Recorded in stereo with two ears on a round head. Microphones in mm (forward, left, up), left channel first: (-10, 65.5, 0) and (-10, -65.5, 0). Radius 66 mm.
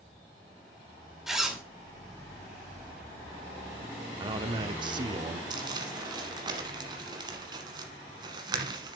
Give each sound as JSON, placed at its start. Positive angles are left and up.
{"t": 1.3, "sound": "a zipper", "side_deg": -5, "distance_m": 2.0}
{"t": 4.2, "sound": "a man speaking", "side_deg": -30, "distance_m": 1.0}
{"t": 5.5, "sound": "crumpling", "side_deg": -30, "distance_m": 1.5}